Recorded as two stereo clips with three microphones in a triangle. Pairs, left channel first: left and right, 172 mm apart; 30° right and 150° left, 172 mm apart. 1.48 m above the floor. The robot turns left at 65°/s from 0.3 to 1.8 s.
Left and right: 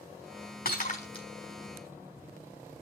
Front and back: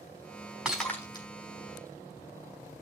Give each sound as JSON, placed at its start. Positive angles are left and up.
{"t": 0.7, "sound": "breaking glass", "azimuth_deg": 65, "distance_m": 4.0}